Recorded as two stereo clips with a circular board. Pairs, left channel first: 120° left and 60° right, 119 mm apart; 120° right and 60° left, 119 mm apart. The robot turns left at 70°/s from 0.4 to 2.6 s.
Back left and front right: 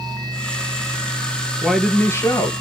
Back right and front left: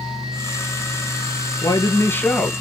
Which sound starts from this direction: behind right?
A man speaking, at 1.6 s.